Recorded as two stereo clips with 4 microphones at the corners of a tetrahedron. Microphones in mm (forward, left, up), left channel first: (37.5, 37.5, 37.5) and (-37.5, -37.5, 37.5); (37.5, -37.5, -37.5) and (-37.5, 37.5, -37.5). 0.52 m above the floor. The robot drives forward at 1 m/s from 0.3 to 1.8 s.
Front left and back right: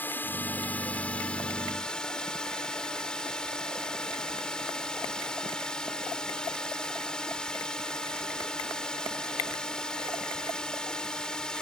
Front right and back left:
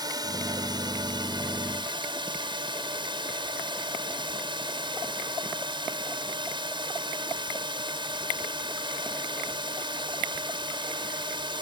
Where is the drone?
110° left; by 11.6 s 125° left.